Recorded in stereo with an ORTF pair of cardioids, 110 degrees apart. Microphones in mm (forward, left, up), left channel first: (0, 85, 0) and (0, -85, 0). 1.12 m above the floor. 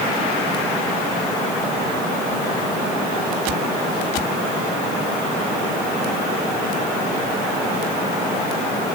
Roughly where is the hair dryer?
I don't hear a hair dryer.